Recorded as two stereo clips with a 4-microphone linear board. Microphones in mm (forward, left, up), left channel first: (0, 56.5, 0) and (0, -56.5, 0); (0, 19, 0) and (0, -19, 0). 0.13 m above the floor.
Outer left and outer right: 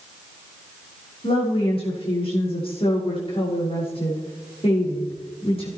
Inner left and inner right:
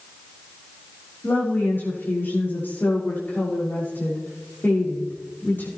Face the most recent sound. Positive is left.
turn(degrees=55)  # may be behind; listen again after turning